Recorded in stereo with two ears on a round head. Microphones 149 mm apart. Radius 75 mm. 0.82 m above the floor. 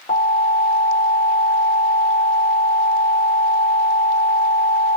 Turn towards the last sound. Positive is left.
turn(degrees=25)  # may be behind; listen again after turning